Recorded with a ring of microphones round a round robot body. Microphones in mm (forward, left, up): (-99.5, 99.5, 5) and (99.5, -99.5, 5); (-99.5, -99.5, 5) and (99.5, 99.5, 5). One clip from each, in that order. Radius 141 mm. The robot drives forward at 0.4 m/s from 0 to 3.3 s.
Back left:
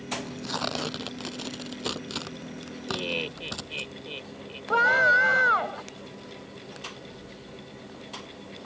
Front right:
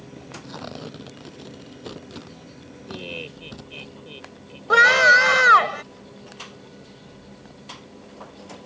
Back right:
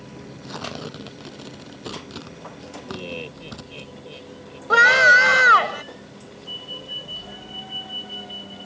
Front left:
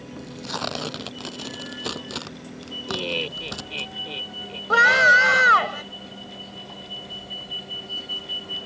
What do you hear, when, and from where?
0.2 s tearing paper: 95° left; by 3.9 s 100° left
2.9 s laughter: 70° left; by 4.6 s 75° left
4.7 s a scream: 55° right